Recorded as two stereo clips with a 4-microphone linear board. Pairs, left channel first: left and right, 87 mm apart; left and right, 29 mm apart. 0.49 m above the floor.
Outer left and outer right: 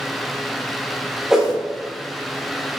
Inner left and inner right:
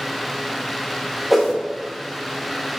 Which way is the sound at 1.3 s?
5° right (ahead or behind).